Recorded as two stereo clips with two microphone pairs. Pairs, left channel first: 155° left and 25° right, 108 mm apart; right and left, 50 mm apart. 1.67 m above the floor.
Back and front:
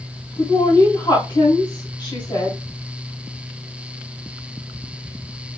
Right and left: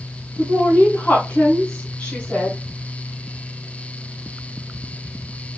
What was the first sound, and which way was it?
A woman speaking, 155° right.